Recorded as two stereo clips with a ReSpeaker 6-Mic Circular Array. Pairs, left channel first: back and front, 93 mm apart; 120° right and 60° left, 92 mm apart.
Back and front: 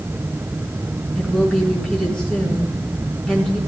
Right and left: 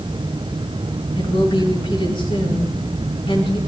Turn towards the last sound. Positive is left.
turn(degrees=-100)